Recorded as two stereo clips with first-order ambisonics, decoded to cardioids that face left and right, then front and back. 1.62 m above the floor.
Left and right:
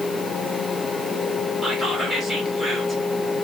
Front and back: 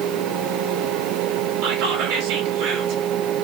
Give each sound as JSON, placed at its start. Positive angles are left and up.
{"t": 1.6, "sound": "whispering", "azimuth_deg": 175, "distance_m": 1.8}